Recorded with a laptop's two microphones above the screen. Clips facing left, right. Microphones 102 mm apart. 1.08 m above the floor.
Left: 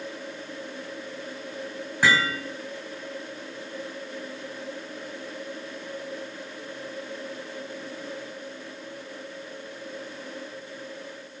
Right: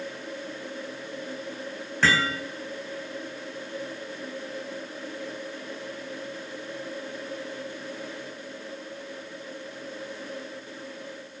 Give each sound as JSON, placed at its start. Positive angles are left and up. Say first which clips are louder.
{"t": 2.0, "sound": "hammering", "louder": "left 1 dB", "side_deg": 10, "distance_m": 4.0}